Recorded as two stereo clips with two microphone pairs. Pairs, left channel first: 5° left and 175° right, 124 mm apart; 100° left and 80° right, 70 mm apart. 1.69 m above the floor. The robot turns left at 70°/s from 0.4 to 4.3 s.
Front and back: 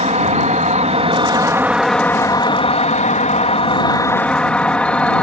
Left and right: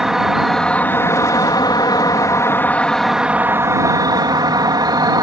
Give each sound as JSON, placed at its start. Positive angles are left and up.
{"t": 0.0, "sound": "an insect", "azimuth_deg": -160}